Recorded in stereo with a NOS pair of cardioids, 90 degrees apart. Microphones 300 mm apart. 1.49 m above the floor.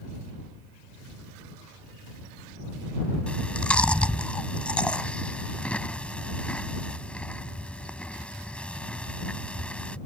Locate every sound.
3.3 s chewing: 5° left